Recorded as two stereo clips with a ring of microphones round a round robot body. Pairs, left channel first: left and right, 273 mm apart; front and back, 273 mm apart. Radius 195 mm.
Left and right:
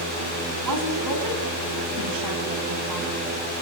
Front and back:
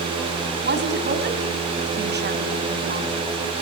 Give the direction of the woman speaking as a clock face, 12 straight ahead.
4 o'clock.